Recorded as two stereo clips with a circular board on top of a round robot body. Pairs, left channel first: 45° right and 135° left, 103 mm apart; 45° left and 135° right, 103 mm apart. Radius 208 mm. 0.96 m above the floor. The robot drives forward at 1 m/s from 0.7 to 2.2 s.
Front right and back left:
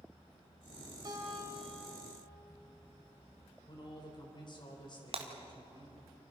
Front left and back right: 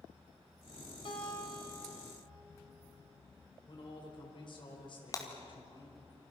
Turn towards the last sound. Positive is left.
turn(degrees=105)